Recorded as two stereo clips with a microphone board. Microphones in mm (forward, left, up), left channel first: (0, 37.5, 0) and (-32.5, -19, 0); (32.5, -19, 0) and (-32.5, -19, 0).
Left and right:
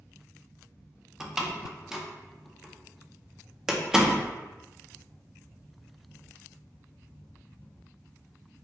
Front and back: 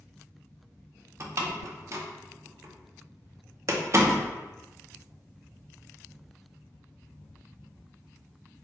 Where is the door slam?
160° left, 0.5 m.